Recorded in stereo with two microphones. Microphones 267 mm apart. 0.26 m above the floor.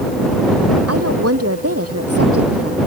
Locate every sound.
0.9 s a woman speaking: 60° right (ahead or behind); by 2.8 s 55° right (ahead or behind)